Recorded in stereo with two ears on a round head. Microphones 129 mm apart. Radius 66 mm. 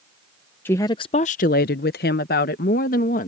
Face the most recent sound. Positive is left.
turn(degrees=65)  # may be behind; listen again after turning